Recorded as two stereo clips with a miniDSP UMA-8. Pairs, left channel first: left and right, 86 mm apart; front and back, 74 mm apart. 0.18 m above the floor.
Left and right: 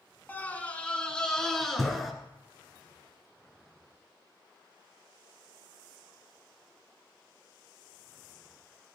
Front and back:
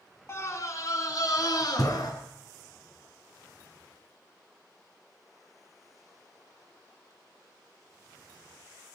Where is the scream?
30° left, 2 m; by 2.1 s straight ahead, 3 m.